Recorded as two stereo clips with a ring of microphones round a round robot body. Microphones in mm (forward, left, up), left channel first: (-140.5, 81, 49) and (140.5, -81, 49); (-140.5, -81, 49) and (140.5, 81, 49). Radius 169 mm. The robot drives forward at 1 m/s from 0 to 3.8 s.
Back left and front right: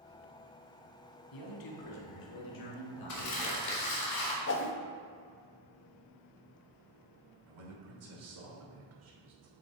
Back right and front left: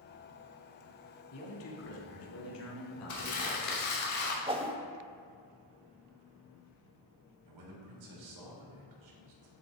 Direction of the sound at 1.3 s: 165° left.